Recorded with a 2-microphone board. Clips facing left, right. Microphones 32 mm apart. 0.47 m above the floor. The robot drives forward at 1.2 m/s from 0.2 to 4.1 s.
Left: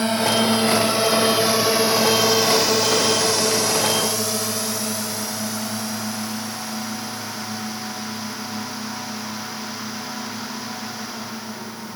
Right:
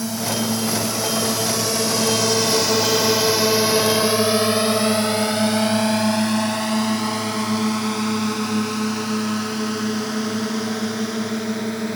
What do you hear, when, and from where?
0.0 s a drone: 45° left (ahead or behind); by 12.0 s 75° right (ahead or behind)